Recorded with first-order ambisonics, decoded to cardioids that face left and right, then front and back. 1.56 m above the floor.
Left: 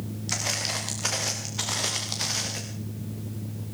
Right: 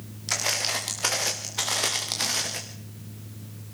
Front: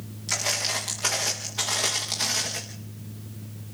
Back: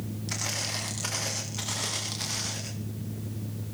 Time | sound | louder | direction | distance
0.3 | footsteps | right 2 dB, front 6 dB | 70° right | 7.5 m